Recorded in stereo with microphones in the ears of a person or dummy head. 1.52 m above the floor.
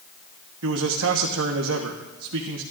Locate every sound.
0.6 s a man speaking: 70° right (ahead or behind), 1.2 m